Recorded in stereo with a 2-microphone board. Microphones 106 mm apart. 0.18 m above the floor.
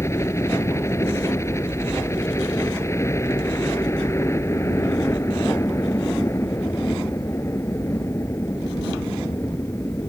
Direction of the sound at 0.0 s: 25° left (ahead or behind).